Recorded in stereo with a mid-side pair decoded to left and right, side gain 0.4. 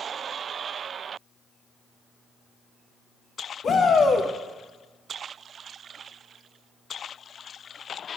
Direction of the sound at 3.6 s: 55° left.